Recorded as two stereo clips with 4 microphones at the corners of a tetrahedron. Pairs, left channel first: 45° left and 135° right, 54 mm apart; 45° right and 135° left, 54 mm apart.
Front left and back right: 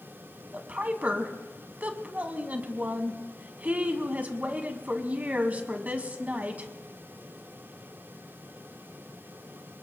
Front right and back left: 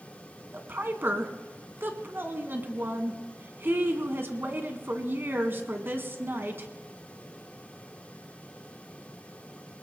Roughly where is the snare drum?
I don't hear a snare drum.